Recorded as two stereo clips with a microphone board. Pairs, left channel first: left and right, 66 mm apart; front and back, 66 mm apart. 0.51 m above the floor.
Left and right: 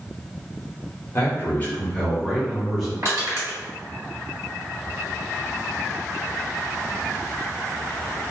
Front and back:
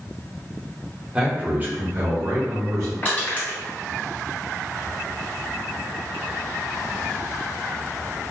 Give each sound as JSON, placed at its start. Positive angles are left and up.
{"t": 1.1, "sound": "a man speaking", "azimuth_deg": 115, "distance_m": 1.1}
{"t": 3.0, "sound": "crushing", "azimuth_deg": -55, "distance_m": 1.6}